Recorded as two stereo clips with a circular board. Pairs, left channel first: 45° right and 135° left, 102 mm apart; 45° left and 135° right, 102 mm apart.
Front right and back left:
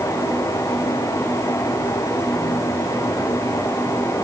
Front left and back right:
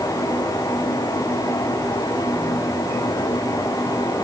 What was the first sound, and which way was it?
Only background noise.